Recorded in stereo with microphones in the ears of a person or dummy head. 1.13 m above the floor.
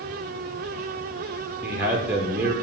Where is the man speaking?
5° right (ahead or behind), 0.5 m.